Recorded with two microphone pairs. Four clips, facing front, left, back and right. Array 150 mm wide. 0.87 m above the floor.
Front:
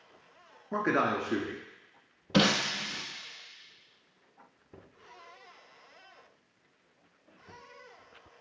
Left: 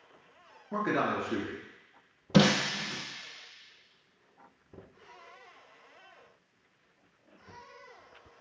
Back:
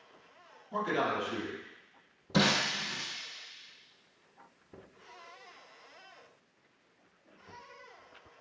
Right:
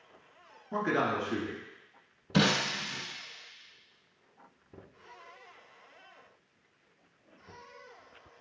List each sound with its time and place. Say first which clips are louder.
0.7 s a man speaking: even, front 3 dB; 10° left, 1.7 m
2.3 s breaking glass: left 3 dB, front 2 dB; 75° left, 2.5 m